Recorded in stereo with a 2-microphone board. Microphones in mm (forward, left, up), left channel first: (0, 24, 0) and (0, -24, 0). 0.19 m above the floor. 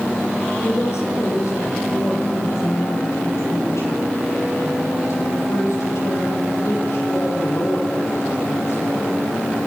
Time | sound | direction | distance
0.6 | a woman speaking | 70° left (ahead or behind) | 5.5 m